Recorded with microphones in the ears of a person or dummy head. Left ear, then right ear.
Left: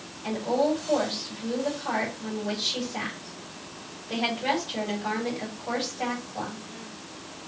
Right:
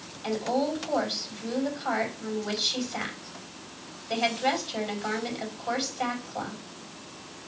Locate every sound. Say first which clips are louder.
0.2 s a woman speaking: left 2 dB; 45° right (ahead or behind), 4.5 m